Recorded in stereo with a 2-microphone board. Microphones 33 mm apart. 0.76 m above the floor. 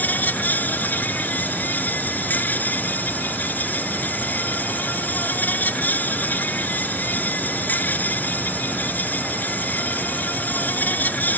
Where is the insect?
60° left (ahead or behind).